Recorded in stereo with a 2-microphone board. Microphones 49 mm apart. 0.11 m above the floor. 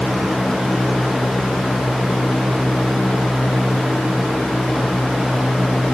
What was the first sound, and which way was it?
Only background noise.